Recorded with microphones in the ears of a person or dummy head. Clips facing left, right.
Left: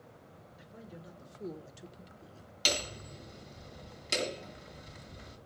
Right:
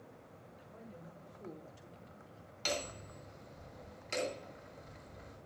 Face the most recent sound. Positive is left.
turn(degrees=50)  # may be behind; listen again after turning